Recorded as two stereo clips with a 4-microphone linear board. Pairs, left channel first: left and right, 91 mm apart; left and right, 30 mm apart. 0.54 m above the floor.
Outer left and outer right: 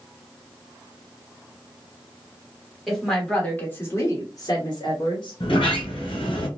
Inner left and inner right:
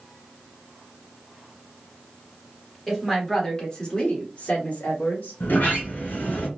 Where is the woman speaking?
Centre (ahead or behind), 1.2 m; by 5.4 s 60° left (ahead or behind), 1.4 m.